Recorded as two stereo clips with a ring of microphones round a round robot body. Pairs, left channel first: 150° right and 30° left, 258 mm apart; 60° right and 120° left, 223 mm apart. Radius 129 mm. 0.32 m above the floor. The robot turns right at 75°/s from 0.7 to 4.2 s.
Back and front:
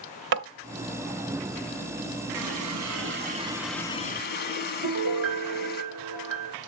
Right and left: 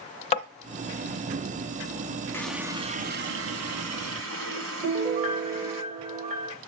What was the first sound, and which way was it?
Tapping, 5° right.